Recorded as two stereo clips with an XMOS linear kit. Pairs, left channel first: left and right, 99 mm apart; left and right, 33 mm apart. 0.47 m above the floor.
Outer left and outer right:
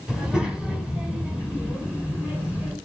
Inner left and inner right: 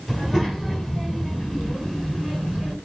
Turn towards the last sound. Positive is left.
turn(degrees=-15)  # may be behind; listen again after turning